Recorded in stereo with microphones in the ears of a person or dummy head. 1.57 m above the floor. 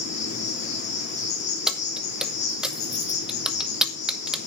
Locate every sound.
0.0 s an insect: 45° left (ahead or behind), 3.5 m
1.7 s keys jangling: 10° right (ahead or behind), 1.2 m